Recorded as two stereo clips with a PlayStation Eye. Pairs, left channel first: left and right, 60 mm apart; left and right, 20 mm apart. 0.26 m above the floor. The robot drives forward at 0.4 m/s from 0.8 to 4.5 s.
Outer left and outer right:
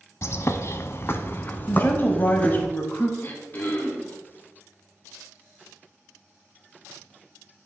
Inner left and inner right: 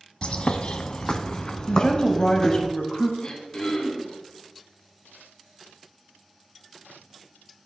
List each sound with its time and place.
0.2 s a bird: 50° left (ahead or behind), 0.6 m; by 2.7 s 25° left (ahead or behind), 1.2 m
1.7 s a woman speaking: 35° left (ahead or behind), 1.1 m
3.2 s throat clearing: 40° left (ahead or behind), 1.7 m; by 4.2 s 35° left (ahead or behind), 1.9 m